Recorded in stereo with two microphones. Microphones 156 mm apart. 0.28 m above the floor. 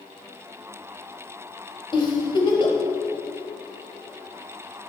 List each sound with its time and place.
1.9 s a giggle: 30° left (ahead or behind), 1.5 m